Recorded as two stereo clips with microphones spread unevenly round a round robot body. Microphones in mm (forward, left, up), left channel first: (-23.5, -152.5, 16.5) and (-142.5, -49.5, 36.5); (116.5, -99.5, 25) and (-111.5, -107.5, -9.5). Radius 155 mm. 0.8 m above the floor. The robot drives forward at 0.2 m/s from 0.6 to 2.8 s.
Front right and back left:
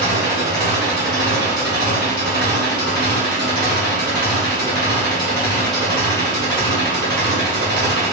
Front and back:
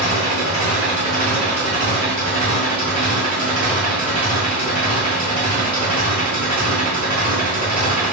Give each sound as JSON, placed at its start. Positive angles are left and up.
{"t": 0.0, "sound": "an engine running", "azimuth_deg": 105, "distance_m": 0.9}